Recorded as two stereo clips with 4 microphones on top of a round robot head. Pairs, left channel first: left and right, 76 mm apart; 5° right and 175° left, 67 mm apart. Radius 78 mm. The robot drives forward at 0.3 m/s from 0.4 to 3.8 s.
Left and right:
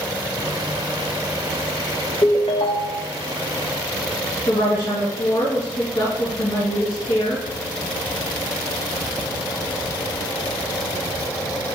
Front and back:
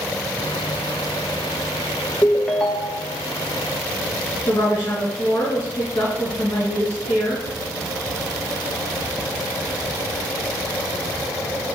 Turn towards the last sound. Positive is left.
turn(degrees=55)